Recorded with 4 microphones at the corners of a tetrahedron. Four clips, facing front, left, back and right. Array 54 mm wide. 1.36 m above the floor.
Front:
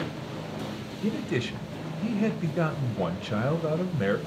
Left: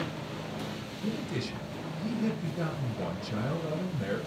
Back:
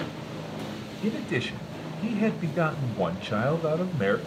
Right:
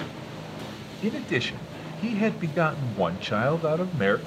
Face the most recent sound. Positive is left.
turn(degrees=-105)